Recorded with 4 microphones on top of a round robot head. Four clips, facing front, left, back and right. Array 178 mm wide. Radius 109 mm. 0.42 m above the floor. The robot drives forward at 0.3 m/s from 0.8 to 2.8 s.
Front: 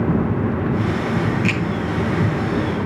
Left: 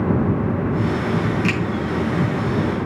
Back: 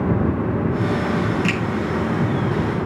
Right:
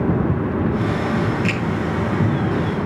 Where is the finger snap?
120° left, 4 m.